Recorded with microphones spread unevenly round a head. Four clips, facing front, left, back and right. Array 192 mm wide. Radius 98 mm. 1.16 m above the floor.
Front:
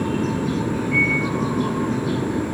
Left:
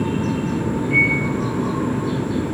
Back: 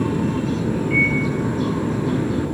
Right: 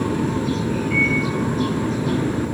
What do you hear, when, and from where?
0.9 s a microwave: straight behind, 6 m